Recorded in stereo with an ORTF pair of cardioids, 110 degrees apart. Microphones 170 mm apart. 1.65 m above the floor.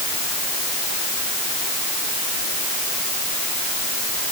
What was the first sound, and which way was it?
Only background noise.